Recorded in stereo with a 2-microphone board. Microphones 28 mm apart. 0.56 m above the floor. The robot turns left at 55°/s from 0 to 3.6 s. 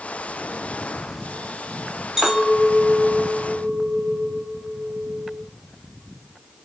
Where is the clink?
20° right, 1.2 m; by 5.4 s 95° right, 1.2 m.